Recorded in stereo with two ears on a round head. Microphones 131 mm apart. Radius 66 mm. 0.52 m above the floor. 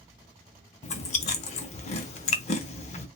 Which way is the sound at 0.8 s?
50° left (ahead or behind).